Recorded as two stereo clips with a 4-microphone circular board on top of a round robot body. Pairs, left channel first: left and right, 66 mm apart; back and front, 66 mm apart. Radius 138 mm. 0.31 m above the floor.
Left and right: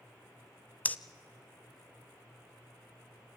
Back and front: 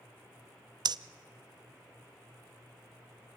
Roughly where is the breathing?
Ahead left.